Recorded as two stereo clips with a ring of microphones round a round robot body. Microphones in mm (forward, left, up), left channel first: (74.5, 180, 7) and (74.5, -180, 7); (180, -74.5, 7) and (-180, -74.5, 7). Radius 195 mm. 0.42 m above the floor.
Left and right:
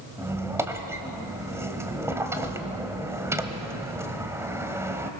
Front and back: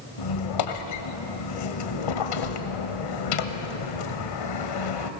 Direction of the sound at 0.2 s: 10° right.